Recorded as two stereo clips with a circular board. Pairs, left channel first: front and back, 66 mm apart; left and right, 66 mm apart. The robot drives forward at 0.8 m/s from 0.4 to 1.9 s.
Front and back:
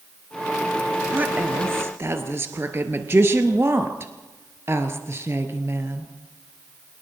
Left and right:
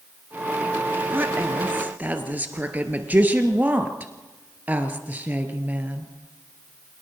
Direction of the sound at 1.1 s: 130° right.